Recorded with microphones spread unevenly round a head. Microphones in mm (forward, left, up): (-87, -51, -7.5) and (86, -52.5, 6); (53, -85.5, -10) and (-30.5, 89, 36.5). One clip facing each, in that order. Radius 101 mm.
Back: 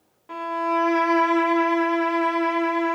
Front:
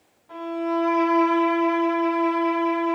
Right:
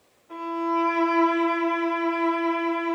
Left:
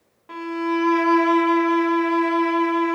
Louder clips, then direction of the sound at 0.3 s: Front 1 dB, left 4 dB; 135° left.